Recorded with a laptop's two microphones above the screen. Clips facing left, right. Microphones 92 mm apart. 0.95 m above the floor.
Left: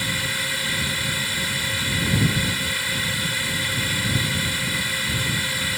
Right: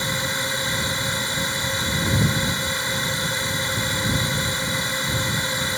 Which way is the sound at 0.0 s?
20° right (ahead or behind).